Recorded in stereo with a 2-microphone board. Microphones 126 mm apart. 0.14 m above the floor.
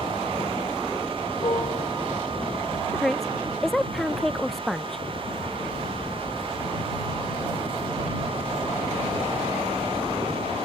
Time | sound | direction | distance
1.4 | a piano | 40° left (ahead or behind) | ?
2.9 | a woman speaking | centre (ahead or behind) | ?